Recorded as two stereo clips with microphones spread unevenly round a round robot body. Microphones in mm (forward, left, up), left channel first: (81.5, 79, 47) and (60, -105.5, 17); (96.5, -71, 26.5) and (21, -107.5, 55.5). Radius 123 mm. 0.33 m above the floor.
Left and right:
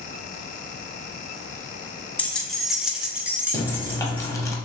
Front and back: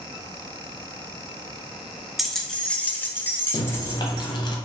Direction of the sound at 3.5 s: 5° left.